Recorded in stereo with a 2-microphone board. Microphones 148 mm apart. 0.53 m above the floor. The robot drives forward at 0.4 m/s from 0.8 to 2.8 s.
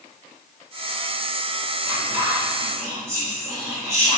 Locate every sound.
1.8 s whispering: 20° right (ahead or behind), 1.3 m